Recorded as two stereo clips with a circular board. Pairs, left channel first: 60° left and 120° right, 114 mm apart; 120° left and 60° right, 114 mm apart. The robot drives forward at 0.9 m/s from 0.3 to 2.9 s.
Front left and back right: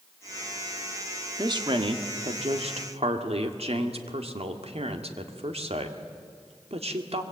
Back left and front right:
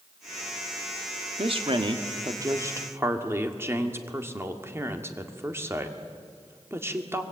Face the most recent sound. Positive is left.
turn(degrees=-125)